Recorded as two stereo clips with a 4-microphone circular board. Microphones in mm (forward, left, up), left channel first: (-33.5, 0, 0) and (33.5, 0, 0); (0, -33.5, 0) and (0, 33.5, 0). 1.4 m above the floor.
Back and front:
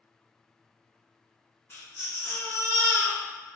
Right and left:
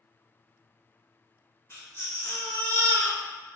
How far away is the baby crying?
About 1.2 m.